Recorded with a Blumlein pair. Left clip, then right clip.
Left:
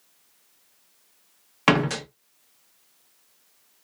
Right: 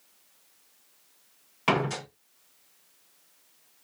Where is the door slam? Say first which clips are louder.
Left 5 dB; 65° left, 1.2 m.